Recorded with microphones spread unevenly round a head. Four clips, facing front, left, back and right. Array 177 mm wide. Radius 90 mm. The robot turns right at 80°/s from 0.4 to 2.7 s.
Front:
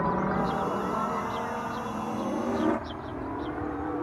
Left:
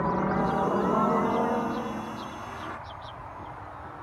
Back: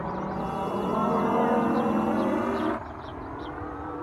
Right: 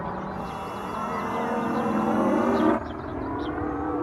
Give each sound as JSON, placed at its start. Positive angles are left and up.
{"t": 0.0, "sound": "a helicopter", "azimuth_deg": 45}